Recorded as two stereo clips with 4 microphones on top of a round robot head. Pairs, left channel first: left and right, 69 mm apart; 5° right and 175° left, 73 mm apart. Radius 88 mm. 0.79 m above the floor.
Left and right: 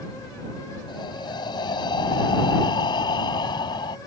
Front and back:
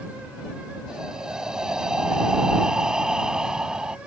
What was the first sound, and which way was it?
Breathing, 95° left.